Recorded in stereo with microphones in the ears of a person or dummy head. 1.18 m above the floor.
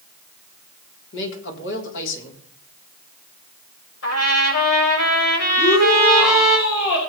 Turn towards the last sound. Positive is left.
turn(degrees=55)  # may be behind; listen again after turning